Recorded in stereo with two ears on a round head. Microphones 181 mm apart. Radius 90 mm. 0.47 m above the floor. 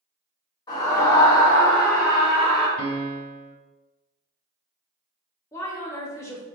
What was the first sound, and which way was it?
A scream, 20° left (ahead or behind).